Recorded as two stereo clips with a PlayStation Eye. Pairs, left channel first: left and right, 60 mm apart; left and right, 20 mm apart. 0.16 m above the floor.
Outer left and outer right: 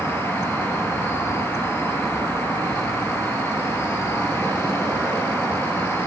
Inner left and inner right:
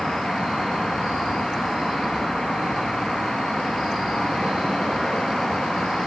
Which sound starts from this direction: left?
An insect, at 0.0 s.